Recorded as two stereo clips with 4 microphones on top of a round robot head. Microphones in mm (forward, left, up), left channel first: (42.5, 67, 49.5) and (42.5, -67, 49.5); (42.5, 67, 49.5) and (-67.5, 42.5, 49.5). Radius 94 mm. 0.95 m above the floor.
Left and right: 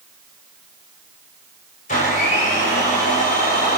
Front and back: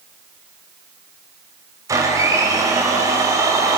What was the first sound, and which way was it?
A blender, 130° left.